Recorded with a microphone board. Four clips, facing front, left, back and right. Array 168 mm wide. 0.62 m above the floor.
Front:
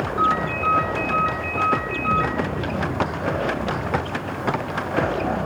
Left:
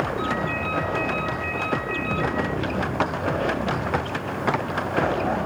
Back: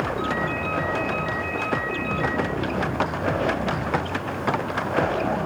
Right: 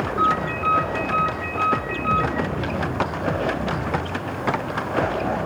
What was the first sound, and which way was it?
A ringtone, 40° right.